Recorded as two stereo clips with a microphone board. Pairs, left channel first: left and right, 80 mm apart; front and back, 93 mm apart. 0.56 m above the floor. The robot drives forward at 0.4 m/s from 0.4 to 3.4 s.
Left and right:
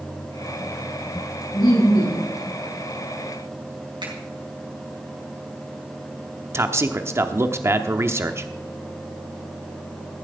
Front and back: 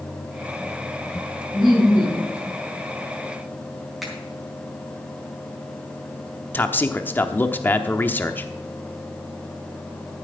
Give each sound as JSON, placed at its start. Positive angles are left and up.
{"t": 1.5, "sound": "laughter", "azimuth_deg": 95, "distance_m": 6.5}
{"t": 4.0, "sound": "a finger snap", "azimuth_deg": -90, "distance_m": 4.5}
{"t": 6.5, "sound": "a man speaking", "azimuth_deg": -55, "distance_m": 0.9}